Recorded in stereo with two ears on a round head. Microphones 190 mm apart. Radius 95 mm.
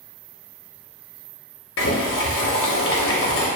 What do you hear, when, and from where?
1.8 s boiling: 60° left (ahead or behind), 0.6 m